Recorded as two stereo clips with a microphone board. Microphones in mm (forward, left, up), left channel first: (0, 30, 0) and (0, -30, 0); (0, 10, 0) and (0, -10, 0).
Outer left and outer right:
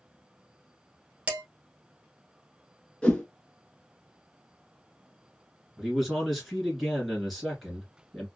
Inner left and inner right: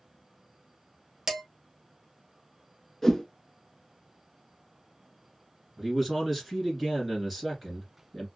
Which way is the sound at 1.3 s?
20° right (ahead or behind).